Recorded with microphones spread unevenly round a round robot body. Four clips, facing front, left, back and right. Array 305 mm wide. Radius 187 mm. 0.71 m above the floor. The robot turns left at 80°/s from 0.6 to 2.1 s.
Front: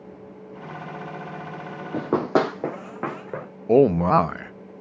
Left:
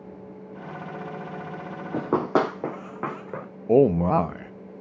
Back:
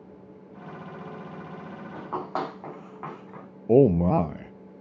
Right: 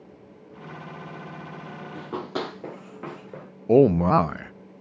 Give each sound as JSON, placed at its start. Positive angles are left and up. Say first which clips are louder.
{"t": 1.9, "sound": "running footsteps", "louder": "left 9 dB, front 10 dB", "azimuth_deg": 50, "distance_m": 0.8}
{"t": 3.7, "sound": "a man speaking", "louder": "right 1 dB, front 2 dB", "azimuth_deg": 20, "distance_m": 0.5}